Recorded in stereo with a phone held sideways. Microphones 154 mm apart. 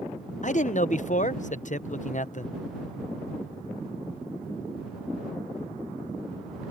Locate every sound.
0.4 s a man speaking: 55° left (ahead or behind)